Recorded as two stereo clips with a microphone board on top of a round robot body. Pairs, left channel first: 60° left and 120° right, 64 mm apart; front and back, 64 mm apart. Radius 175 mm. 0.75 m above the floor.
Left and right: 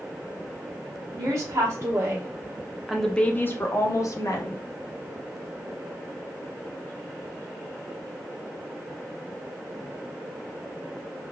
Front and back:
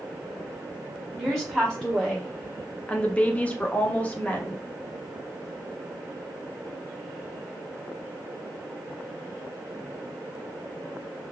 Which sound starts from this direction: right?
A woman speaking, at 1.2 s.